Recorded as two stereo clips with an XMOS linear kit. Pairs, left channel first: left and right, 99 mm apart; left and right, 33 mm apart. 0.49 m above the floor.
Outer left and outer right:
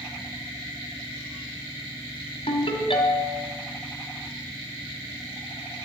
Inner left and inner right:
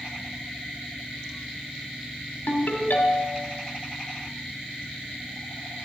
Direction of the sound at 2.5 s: 75° left (ahead or behind).